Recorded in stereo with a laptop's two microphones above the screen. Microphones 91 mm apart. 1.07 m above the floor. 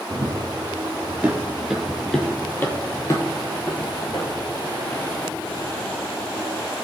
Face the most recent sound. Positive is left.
turn(degrees=70)  # may be behind; listen again after turning